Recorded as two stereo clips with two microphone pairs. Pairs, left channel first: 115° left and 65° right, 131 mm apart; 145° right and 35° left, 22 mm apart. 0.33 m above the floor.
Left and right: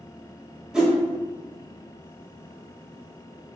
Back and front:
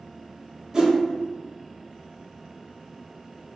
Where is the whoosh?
15° left, 1.0 m.